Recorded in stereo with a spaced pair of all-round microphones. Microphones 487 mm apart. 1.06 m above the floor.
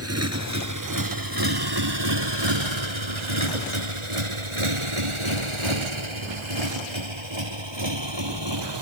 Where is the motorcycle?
30° right (ahead or behind); by 8.8 s 55° right (ahead or behind).